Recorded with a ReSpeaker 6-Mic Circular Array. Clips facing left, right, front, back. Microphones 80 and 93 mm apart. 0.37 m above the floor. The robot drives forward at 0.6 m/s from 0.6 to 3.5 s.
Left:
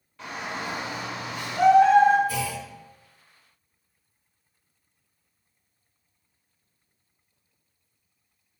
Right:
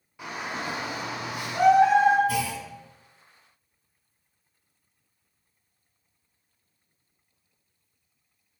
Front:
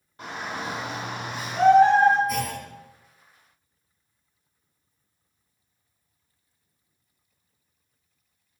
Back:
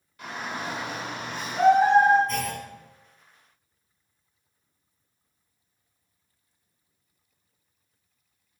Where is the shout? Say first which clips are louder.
Even, front 1 dB; 20° right, 1.1 m; by 2.2 s 145° right, 1.0 m.